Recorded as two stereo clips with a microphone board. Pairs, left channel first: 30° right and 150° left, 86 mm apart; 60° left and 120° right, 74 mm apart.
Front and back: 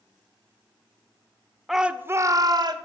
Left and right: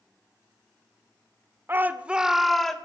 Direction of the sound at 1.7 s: 120° right.